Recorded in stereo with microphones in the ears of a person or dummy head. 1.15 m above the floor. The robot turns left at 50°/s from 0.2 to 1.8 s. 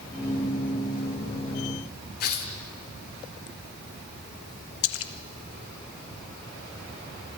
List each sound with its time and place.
2.2 s tearing paper: 55° left (ahead or behind), 1.5 m
4.8 s a splash: 70° left (ahead or behind), 0.9 m